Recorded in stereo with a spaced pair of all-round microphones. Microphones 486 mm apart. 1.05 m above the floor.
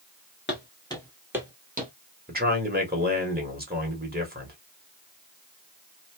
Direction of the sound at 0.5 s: 20° left (ahead or behind).